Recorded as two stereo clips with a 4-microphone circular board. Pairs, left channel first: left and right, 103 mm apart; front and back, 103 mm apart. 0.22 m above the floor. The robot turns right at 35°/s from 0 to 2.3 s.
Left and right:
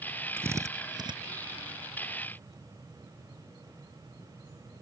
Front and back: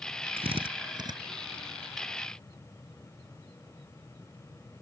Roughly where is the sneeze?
I don't hear a sneeze.